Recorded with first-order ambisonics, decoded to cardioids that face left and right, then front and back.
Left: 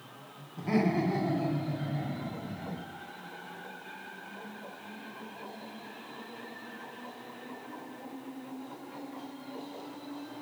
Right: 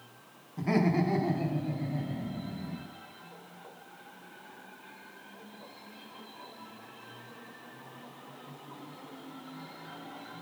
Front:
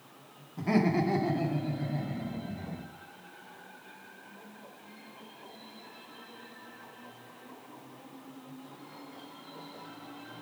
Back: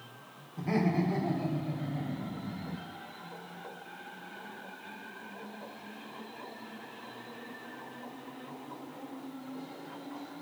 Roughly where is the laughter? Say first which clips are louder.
Even, front 3 dB; ahead right.